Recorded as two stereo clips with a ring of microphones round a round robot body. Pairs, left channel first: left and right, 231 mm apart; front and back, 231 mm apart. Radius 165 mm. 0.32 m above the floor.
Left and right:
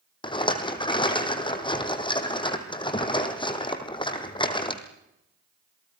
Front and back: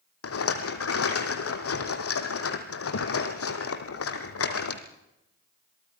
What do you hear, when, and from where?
0.2 s a rattle: 20° left, 2.5 m